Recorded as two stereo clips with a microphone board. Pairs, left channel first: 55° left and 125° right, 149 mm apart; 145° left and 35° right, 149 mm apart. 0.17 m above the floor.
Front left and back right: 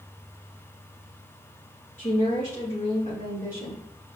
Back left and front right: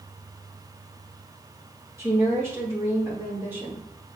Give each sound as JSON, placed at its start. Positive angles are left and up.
{"t": 2.0, "sound": "a woman speaking", "azimuth_deg": 35, "distance_m": 3.5}